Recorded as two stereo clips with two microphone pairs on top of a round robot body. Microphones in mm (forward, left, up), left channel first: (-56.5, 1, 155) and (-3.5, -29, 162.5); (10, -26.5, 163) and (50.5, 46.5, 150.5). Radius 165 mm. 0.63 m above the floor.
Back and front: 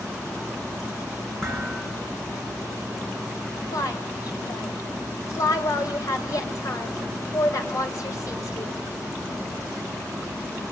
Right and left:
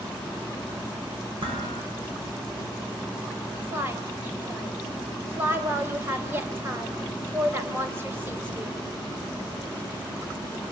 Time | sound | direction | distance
1.4 | dishes clattering | 65° left | 7.5 m
3.7 | a woman speaking | 120° left | 3 m